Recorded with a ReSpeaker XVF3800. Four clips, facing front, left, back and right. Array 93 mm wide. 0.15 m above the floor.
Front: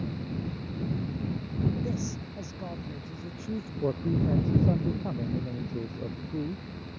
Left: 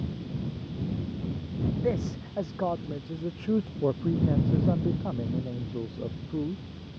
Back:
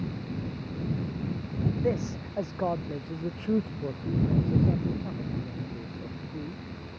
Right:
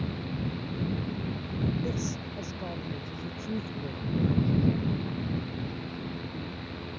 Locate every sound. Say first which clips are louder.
1.8 s a man speaking: left 4 dB, back 5 dB; 135° left
3.8 s a man speaking: left 2 dB, front 2 dB; 70° left